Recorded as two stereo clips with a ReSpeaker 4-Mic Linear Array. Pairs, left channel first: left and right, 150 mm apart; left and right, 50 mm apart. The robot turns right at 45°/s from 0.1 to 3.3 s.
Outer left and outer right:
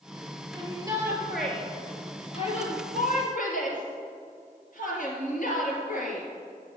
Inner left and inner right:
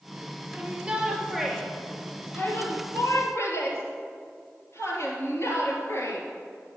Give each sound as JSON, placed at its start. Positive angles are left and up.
{"t": 0.5, "sound": "a shout", "azimuth_deg": -40, "distance_m": 3.5}